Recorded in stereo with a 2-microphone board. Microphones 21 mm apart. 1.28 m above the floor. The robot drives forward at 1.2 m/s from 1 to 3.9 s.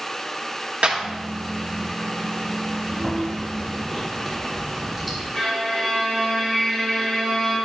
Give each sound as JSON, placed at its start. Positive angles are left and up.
{"t": 0.8, "sound": "a clap", "side_deg": -85, "distance_m": 1.6}
{"t": 2.9, "sound": "chewing", "side_deg": -5, "distance_m": 3.5}
{"t": 5.3, "sound": "a violin", "side_deg": 20, "distance_m": 3.5}